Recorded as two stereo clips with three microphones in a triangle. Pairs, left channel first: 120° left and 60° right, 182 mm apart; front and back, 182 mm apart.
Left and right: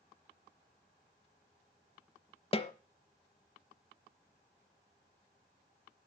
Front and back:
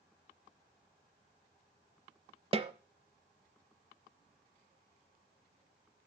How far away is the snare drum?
About 0.7 m.